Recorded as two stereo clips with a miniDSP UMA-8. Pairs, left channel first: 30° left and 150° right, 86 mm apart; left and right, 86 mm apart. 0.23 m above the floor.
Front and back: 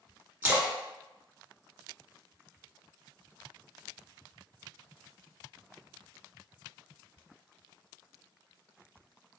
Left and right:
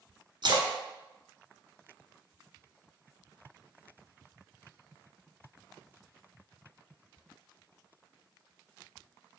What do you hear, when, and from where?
0.4 s a splash: 85° right, 1.0 m